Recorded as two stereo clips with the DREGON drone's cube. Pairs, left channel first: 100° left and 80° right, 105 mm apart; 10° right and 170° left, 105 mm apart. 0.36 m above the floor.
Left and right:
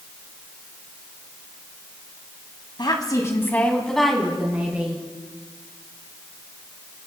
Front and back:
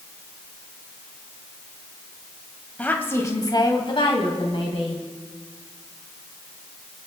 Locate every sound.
2.8 s a woman speaking: 65° left, 1.9 m; by 5.0 s 10° right, 3 m